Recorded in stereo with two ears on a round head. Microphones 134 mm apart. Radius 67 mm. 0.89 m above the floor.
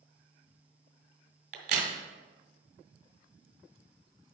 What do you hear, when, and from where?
1.5 s a crack: 65° right (ahead or behind), 2 m